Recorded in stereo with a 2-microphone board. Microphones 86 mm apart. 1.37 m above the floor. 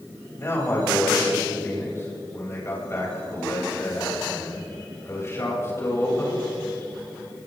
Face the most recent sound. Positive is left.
turn(degrees=30)  # may be behind; listen again after turning